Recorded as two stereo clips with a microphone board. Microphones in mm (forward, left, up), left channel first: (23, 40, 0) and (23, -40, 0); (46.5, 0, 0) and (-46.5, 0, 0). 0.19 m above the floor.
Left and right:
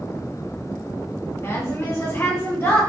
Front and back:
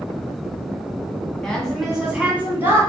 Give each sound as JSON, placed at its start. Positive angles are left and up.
{"t": 1.4, "sound": "a woman speaking", "azimuth_deg": 75, "distance_m": 1.7}